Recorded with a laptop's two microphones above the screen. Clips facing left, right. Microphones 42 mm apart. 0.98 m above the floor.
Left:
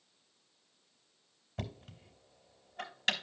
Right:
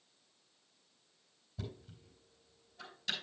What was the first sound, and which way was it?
Knocking, 60° left (ahead or behind).